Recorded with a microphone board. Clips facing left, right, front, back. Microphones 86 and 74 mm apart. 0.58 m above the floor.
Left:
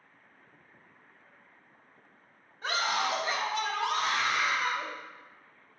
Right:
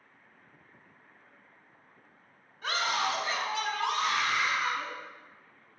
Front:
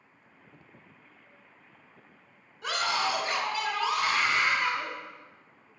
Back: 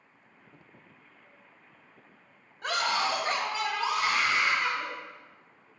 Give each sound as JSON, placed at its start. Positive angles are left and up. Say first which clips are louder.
{"t": 2.6, "sound": "a scream", "louder": "even, back 1 dB", "azimuth_deg": 145, "distance_m": 2.5}